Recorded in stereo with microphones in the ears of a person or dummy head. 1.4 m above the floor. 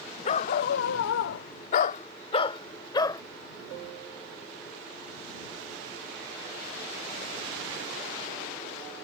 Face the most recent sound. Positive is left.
turn(degrees=20)  # may be behind; listen again after turning